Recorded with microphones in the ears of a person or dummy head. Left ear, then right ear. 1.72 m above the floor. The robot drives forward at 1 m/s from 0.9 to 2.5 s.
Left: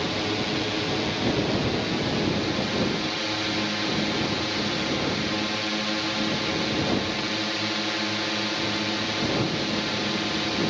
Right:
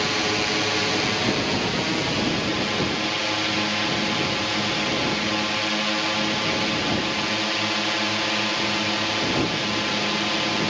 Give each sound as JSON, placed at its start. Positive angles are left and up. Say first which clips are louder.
{"t": 0.0, "sound": "a drone", "louder": "right 4 dB", "side_deg": -35}